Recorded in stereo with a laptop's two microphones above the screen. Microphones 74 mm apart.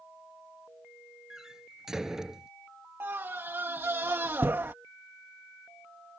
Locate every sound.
1.3 s a door slam: 10° right (ahead or behind)
3.0 s a scream: 30° right (ahead or behind)